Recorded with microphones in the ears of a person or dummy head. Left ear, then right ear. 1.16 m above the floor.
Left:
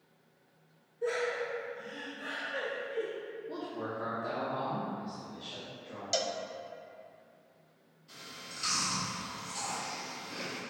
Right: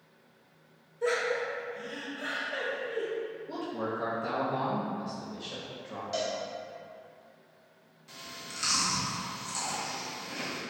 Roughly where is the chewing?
Right.